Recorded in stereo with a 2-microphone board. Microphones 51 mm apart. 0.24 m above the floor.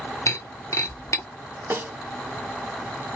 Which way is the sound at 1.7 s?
50° right (ahead or behind).